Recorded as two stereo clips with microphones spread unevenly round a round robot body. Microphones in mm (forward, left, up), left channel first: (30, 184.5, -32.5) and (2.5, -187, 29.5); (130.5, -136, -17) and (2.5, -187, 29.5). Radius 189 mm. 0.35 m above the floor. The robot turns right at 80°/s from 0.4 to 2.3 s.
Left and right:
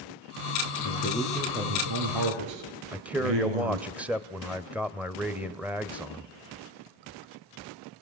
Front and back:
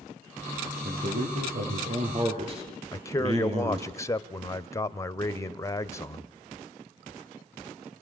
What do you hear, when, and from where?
0.8 s a man speaking: 130° left, 5.5 m; by 3.9 s 110° right, 5.5 m
2.9 s a man speaking: straight ahead, 1.3 m